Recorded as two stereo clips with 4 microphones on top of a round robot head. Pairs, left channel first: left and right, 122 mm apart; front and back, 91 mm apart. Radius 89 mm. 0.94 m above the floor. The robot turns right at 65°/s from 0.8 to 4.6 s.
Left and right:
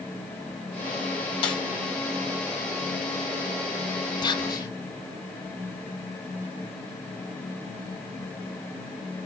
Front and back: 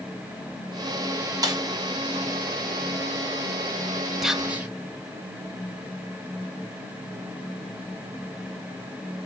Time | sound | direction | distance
1.4 | a snare drum | 135° left | 1.3 m
4.2 | whispering | 100° left | 0.9 m